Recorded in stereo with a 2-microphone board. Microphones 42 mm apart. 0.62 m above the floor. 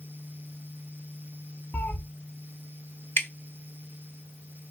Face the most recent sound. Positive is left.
turn(degrees=55)  # may be behind; listen again after turning